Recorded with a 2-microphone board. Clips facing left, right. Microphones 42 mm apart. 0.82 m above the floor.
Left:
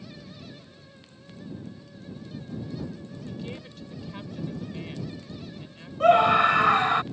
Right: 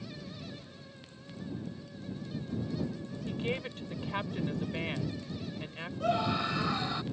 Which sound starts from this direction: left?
A scream, at 6.0 s.